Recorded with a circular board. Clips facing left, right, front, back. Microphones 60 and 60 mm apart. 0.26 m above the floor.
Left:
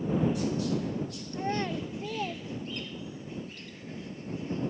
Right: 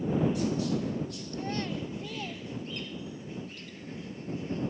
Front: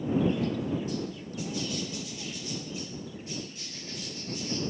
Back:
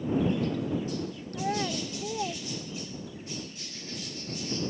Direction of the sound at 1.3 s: 155° left.